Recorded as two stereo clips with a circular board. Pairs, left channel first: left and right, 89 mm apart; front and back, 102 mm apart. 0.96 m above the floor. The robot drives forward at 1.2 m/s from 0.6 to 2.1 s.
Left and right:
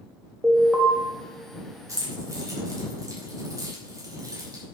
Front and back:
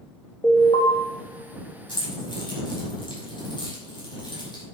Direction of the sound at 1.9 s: 40° right.